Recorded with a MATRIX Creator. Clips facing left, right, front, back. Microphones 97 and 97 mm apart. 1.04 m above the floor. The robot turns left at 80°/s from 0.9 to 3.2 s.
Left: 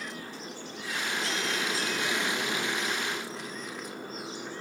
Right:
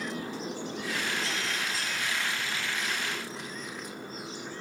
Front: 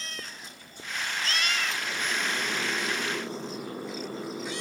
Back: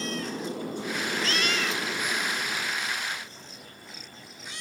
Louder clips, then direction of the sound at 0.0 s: Right 5 dB, back 11 dB; 160° right.